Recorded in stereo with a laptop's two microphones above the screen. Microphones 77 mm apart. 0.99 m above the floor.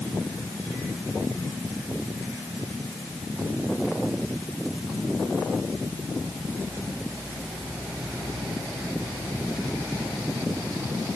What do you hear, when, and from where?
Only background noise.